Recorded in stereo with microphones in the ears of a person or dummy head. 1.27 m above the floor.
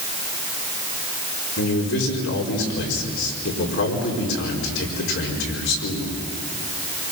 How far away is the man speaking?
About 5 m.